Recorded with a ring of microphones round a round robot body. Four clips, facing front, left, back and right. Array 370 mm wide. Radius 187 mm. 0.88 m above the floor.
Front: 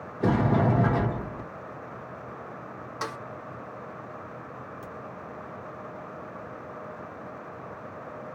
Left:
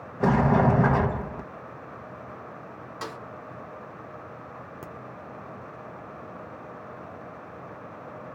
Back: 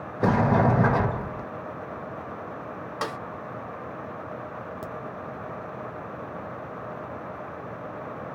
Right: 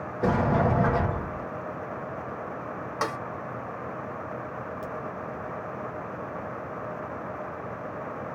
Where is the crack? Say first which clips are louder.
Right 6 dB, back 5 dB; 150° left, 0.7 m.